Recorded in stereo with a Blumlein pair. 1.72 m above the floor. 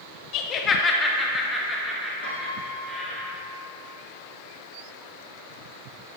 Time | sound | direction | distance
0.3 | laughter | 35° left | 1.1 m
2.2 | a piano | 55° left | 3 m